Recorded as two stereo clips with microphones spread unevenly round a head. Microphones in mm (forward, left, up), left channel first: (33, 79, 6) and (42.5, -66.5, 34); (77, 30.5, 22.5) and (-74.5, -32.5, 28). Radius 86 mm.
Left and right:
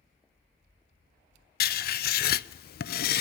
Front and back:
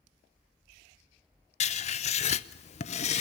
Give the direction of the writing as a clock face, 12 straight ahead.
9 o'clock.